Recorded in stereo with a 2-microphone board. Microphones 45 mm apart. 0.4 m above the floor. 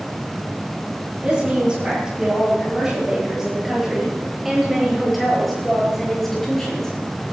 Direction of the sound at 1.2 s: 25° right (ahead or behind).